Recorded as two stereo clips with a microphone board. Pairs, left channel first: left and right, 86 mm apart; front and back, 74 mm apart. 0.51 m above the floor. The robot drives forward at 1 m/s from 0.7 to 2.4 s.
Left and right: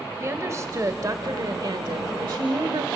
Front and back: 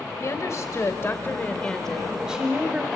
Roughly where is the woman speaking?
Ahead right.